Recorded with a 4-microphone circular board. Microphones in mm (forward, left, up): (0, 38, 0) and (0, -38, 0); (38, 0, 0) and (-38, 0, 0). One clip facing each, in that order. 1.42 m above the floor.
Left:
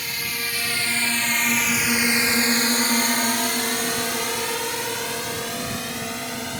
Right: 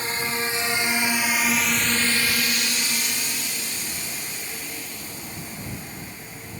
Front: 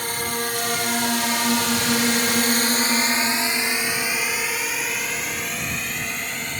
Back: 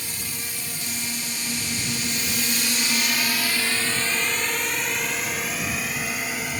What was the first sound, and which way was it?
A drone, 35° right.